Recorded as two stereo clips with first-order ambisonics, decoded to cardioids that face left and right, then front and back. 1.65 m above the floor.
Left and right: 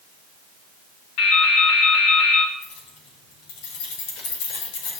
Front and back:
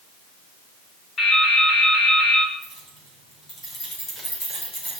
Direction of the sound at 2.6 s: 75° left.